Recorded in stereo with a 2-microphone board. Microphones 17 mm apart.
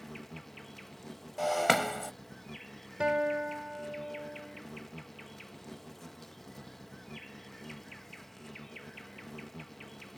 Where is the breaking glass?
Centre (ahead or behind).